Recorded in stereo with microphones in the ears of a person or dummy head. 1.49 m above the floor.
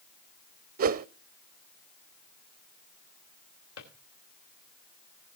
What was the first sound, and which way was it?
A whoosh, 50° right (ahead or behind).